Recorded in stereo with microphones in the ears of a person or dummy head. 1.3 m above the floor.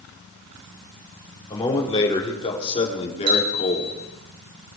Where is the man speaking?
20° left (ahead or behind), 4.5 m; by 4.0 s 35° left (ahead or behind), 3.5 m.